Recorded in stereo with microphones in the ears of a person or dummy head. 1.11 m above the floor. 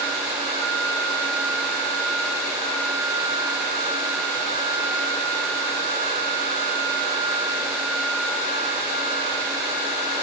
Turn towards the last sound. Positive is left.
No sound to turn to.